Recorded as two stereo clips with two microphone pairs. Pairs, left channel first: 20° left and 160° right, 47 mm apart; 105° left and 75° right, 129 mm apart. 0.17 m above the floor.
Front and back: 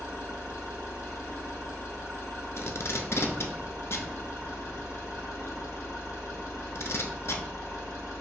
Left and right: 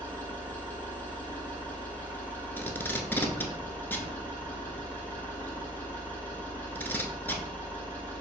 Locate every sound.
0.0 s an engine running: 30° left, 1.9 m
2.6 s tape being pulled: 30° left, 0.7 m